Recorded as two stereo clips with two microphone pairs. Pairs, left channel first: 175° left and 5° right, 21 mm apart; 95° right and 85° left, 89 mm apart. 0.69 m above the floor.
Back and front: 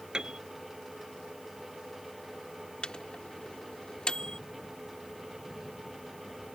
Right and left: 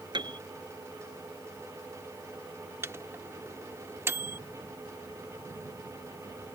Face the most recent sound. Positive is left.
turn(degrees=140)